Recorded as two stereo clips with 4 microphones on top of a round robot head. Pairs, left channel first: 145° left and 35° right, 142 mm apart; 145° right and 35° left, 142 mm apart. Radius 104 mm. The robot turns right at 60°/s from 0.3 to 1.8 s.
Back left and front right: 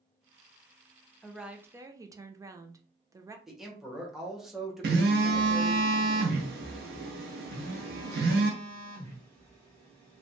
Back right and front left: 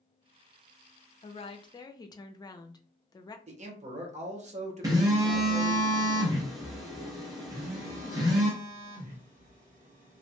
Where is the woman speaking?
130° right, 0.5 m; by 3.4 s 95° right, 0.5 m.